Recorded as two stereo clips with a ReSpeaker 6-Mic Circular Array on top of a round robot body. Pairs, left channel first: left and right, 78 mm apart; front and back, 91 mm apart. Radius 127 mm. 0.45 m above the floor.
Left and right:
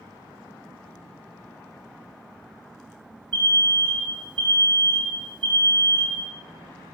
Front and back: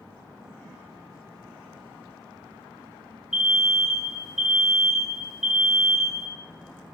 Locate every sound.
3.3 s an alarm: 95° right, 5 m